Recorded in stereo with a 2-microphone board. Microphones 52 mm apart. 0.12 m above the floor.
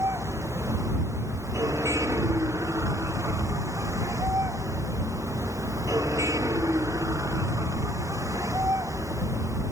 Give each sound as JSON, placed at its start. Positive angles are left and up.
{"t": 0.0, "sound": "a vehicle", "side_deg": -70}